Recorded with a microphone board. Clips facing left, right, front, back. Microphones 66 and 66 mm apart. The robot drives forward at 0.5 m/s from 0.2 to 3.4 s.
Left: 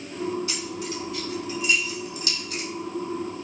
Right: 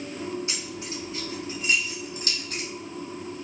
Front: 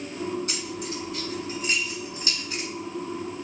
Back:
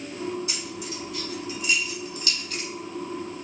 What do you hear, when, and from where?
0.5 s keys jangling: 30° right, 1.8 m; by 2.7 s 65° right, 1.1 m